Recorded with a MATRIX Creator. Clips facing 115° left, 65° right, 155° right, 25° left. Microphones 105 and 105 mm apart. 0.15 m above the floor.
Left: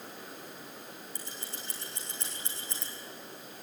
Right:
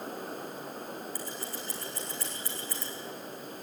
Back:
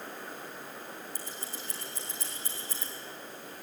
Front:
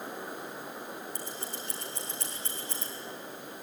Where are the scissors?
45° left, 6.5 m.